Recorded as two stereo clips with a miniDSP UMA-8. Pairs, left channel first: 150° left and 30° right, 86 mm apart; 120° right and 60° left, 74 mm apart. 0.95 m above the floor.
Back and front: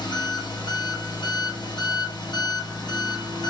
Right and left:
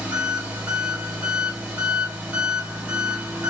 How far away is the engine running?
About 2.5 m.